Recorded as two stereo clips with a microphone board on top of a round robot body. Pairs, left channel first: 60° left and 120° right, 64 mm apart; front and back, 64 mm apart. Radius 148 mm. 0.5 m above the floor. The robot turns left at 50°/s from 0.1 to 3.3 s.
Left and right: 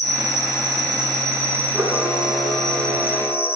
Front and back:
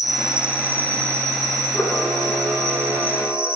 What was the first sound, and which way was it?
An insect, 90° right.